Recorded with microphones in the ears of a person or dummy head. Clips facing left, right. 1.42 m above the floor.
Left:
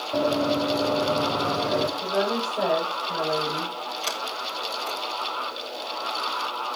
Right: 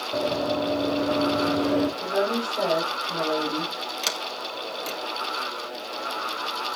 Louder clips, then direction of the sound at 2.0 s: Even; 15° right (ahead or behind).